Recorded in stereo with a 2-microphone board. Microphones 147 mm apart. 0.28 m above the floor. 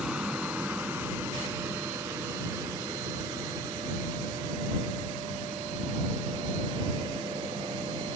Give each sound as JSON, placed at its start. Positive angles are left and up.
{"t": 0.0, "sound": "an aircraft", "side_deg": -5}